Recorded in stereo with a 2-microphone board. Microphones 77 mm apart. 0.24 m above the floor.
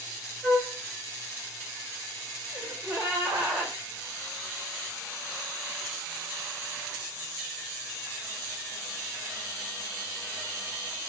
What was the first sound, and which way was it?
A flute, 5° left (ahead or behind).